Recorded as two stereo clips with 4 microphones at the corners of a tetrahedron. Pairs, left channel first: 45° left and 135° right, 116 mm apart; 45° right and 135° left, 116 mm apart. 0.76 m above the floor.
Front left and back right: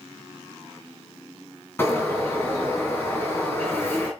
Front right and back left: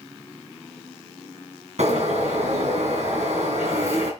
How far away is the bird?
About 4 m.